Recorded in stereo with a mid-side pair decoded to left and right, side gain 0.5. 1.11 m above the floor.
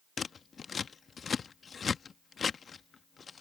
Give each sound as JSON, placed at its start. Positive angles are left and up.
{"t": 0.2, "sound": "scissors", "azimuth_deg": 40}